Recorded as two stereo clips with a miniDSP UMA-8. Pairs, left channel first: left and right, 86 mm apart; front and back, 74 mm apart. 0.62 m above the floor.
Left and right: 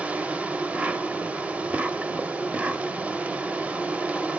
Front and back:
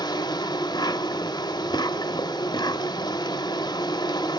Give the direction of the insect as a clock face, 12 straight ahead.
1 o'clock.